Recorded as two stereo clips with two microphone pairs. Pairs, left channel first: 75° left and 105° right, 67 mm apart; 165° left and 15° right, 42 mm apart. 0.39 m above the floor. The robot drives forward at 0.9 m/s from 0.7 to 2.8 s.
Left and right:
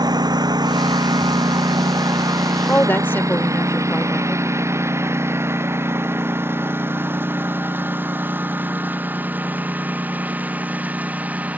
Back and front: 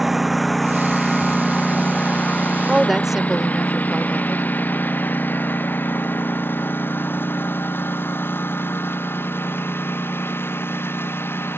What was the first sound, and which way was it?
A lawn mower, 100° right.